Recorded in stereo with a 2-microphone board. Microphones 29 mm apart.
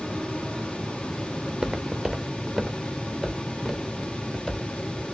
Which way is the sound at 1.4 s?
25° right (ahead or behind).